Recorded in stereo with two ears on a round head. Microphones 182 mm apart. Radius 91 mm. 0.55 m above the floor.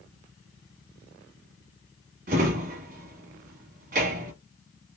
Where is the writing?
I don't hear writing.